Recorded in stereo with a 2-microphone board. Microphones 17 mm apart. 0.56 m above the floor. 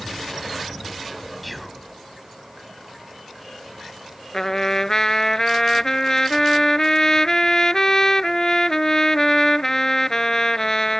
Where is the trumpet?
30° left (ahead or behind).